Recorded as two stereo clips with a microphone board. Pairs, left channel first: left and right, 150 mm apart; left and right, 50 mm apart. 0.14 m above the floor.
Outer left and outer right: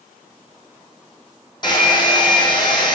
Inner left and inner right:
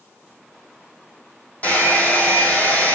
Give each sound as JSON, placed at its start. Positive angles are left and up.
{"t": 1.6, "sound": "a hair dryer", "side_deg": 30, "distance_m": 3.0}